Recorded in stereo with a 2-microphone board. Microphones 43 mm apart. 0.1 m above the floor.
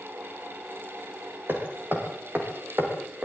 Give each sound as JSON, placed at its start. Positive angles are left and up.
{"t": 1.5, "sound": "hammering", "side_deg": -50, "distance_m": 6.5}